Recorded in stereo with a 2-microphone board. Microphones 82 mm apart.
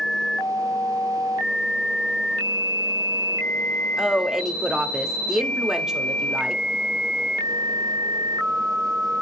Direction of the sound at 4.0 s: 5° right (ahead or behind).